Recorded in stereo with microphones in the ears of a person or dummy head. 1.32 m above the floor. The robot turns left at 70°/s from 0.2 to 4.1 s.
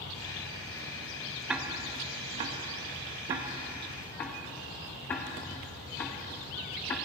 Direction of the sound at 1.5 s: 10° right (ahead or behind).